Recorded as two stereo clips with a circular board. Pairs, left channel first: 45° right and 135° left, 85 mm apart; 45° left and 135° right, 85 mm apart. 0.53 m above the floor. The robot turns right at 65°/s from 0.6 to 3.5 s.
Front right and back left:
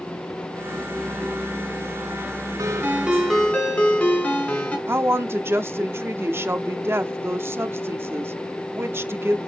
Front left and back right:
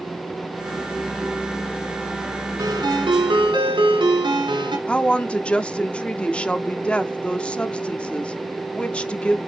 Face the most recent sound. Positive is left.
turn(degrees=110)